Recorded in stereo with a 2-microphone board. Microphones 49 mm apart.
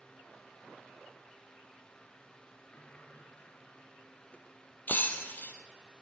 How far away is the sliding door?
About 2 m.